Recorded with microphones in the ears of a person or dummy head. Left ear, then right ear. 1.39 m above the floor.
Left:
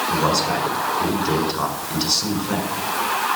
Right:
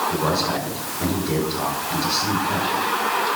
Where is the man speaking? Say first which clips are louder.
Left 2 dB; 85° left, 6.5 m.